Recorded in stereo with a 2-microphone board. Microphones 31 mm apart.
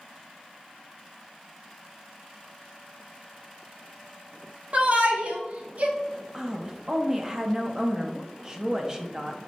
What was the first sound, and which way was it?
A shout, 55° right (ahead or behind).